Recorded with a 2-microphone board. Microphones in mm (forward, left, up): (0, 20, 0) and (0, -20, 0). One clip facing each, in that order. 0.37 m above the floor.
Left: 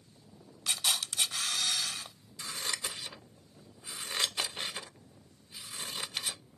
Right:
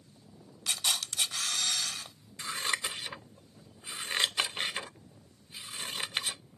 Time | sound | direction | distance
0.7 | a camera shutter | 5° left (ahead or behind) | ?
2.4 | scissors | 35° right (ahead or behind) | ?